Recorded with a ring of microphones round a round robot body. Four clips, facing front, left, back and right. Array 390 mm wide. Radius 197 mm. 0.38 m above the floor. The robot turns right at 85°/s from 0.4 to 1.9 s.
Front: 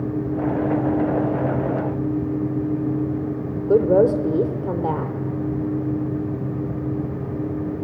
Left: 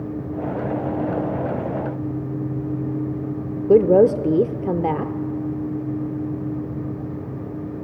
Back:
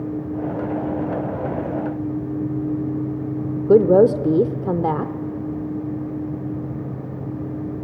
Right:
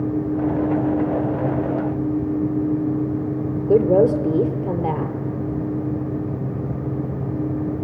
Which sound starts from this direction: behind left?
A woman speaking, at 3.7 s.